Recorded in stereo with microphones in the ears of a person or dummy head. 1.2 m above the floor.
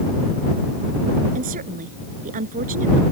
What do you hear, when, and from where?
1.4 s a woman speaking: 45° right (ahead or behind)